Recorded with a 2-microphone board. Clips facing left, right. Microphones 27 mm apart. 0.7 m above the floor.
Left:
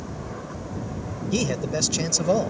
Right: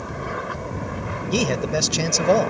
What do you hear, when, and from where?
0.0 s an aircraft: 60° right (ahead or behind)
1.3 s a man speaking: 25° right (ahead or behind)